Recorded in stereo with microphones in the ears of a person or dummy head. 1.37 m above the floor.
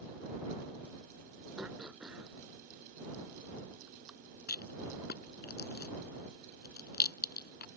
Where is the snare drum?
I don't hear a snare drum.